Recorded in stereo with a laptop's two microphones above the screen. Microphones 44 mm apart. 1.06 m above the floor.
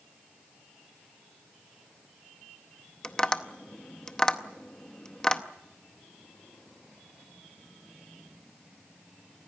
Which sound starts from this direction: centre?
Tapping, at 3.0 s.